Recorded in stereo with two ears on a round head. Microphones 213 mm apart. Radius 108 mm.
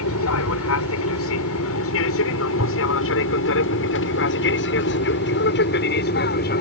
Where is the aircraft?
65° left (ahead or behind); by 6.6 s 40° left (ahead or behind).